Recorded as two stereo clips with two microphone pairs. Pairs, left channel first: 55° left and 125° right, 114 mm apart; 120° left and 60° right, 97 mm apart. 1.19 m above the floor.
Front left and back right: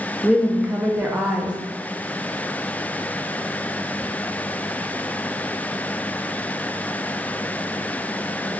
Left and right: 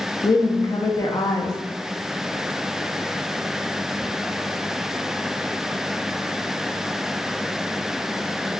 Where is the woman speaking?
160° left, 0.6 m.